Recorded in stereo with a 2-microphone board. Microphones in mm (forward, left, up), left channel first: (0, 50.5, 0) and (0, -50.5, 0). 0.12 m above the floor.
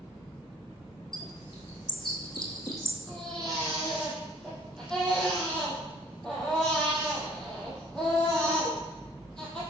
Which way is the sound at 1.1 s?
50° left (ahead or behind).